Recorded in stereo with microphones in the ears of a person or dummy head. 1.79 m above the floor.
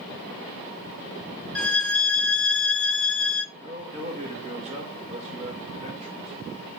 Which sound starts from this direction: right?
A man speaking, at 3.5 s.